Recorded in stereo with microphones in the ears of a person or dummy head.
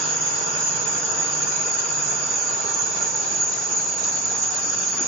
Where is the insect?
50° right (ahead or behind), 9.5 m.